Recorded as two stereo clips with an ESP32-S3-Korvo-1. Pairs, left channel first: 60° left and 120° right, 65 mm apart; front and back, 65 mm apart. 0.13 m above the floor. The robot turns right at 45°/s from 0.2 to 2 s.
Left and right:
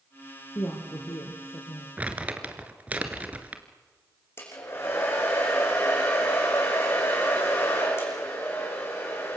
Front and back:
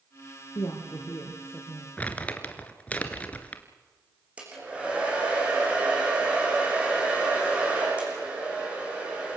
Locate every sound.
0.6 s a woman speaking: 15° left, 3.5 m; by 1.9 s 75° left, 3.5 m
2.0 s crumpling: 60° right, 2 m
4.4 s a hair dryer: 110° left, 9 m